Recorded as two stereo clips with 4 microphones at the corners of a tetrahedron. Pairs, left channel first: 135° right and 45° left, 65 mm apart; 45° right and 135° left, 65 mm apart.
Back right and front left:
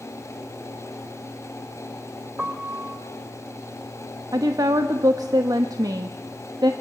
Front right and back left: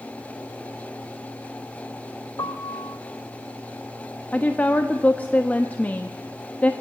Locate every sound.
2.4 s a piano: 30° right, 2.5 m
4.3 s a woman speaking: 20° left, 1.1 m